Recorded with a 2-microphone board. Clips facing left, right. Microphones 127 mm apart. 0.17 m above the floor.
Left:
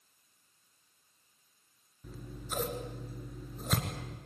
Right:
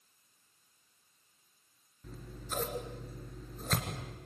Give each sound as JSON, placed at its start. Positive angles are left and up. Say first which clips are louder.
{"t": 2.0, "sound": "scissors", "louder": "left 1 dB", "side_deg": 5, "distance_m": 3.0}